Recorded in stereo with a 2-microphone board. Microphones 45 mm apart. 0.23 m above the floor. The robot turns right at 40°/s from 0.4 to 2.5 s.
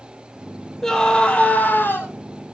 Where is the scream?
5° left, 7.5 m; by 2.1 s 55° left, 7.5 m.